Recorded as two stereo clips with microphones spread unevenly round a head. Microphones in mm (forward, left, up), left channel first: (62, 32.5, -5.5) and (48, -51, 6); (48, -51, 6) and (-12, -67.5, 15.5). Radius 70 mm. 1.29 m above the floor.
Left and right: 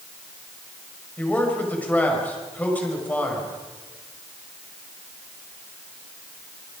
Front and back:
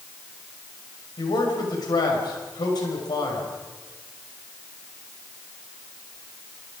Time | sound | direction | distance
1.2 | a man speaking | 10° left | 6 m